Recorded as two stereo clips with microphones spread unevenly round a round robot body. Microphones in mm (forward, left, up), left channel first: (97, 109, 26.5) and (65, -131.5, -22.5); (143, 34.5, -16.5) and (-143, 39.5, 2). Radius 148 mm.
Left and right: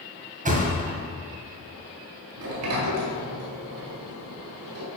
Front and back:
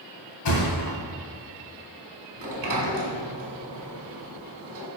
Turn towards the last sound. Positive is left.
turn(degrees=-130)